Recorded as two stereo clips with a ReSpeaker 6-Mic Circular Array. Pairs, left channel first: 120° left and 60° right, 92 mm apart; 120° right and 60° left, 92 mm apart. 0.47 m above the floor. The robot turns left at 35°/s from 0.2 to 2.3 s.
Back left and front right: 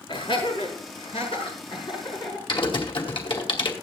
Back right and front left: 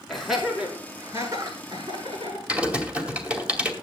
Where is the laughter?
155° left, 6.5 m; by 2.4 s 80° left, 6.5 m.